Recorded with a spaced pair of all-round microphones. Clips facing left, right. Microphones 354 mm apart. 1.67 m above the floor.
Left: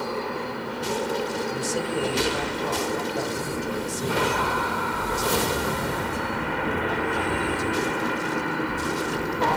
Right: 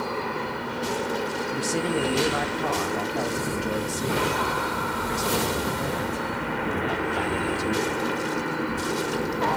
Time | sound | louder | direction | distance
1.5 | a man speaking | right 1 dB | 75° right (ahead or behind) | 2.5 m